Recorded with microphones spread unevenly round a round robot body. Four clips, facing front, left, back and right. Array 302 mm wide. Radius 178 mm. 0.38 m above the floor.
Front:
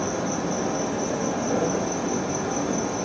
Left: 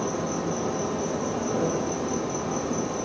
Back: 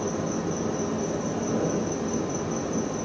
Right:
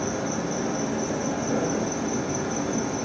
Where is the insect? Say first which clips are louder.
Even, front 2 dB; 10° right, 2.5 m.